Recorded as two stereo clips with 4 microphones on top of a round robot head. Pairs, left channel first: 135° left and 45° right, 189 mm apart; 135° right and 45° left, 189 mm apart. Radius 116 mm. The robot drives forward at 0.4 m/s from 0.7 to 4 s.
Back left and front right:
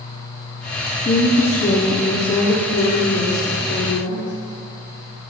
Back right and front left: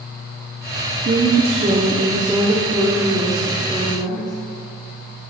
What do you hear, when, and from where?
1.1 s a woman speaking: 85° left, 1.1 m; by 4.3 s 140° left, 1.6 m